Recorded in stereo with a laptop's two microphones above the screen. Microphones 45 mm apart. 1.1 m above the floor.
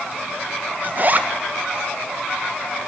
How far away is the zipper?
About 0.9 m.